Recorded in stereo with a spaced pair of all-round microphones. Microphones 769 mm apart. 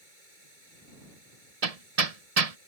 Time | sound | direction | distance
0.0 | running water | 85° right | ?
1.6 | hammering | 50° right (ahead or behind) | ?